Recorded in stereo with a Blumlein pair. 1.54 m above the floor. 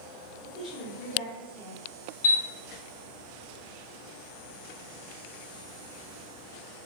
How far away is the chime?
About 0.6 m.